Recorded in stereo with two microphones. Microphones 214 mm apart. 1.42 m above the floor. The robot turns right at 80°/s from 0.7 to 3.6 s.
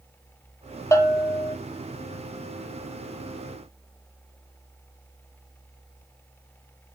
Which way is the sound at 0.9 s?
15° left (ahead or behind).